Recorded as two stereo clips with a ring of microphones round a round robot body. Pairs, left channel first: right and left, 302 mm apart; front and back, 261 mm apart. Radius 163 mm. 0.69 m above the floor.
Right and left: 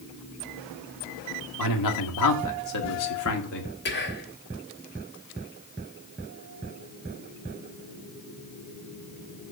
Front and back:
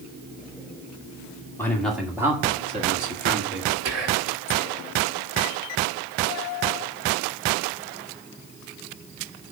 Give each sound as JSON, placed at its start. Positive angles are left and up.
{"t": 1.6, "sound": "a man speaking", "azimuth_deg": -80, "distance_m": 2.0}
{"t": 3.9, "sound": "whispering", "azimuth_deg": -145, "distance_m": 1.7}